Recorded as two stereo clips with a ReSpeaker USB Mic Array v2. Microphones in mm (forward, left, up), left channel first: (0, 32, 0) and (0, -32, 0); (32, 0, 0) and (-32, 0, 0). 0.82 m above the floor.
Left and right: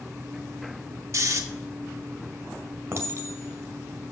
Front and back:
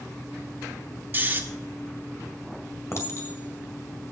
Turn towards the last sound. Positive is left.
turn(degrees=-45)